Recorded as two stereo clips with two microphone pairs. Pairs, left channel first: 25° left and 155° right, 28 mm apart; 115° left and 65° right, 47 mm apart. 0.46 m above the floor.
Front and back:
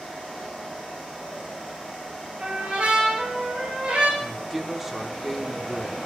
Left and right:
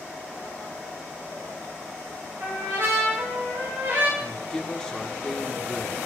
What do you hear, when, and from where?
2.4 s a trumpet: 100° right, 7.5 m
4.2 s a woman speaking: 150° left, 0.9 m